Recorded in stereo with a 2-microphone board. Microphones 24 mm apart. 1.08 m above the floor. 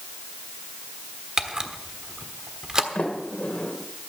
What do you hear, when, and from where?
1.4 s a camera shutter: 30° right (ahead or behind), 1.2 m
3.0 s a sliding door: 75° left (ahead or behind), 3 m